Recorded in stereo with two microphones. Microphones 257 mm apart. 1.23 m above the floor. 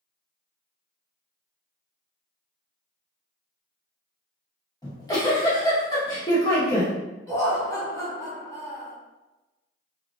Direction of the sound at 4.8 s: 15° left (ahead or behind).